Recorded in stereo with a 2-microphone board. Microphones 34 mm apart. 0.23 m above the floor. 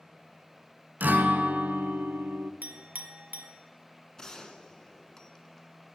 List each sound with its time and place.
1.0 s a guitar: 65° right (ahead or behind), 0.7 m
2.6 s a clink: 55° right (ahead or behind), 1.0 m
4.2 s a gunshot: 20° left (ahead or behind), 0.9 m